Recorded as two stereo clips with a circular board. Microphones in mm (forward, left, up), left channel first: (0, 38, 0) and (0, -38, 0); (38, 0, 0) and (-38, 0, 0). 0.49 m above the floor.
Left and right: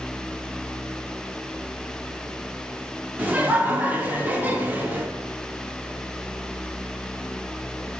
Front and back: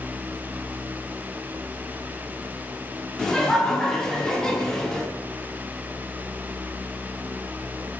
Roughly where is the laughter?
Right.